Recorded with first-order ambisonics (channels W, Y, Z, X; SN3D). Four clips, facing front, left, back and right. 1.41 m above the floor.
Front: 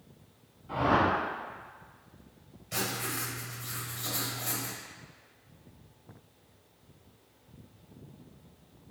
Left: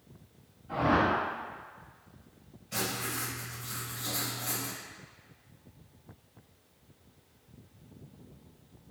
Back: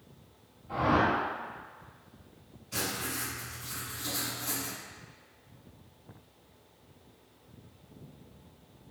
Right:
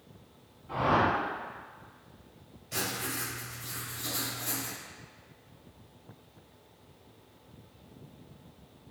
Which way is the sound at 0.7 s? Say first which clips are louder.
Even, front 1 dB; 40° right.